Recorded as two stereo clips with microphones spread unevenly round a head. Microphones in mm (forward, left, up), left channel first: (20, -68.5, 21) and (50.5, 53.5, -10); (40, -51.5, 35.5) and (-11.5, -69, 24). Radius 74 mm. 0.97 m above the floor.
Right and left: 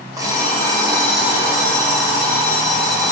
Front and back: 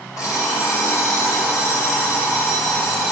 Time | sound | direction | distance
0.2 | an alarm clock | 10° left | 2.5 m